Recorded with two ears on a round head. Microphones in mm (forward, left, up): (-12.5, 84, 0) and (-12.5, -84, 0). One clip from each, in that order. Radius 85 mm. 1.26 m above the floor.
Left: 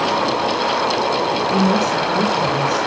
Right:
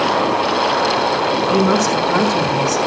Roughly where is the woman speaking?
Right.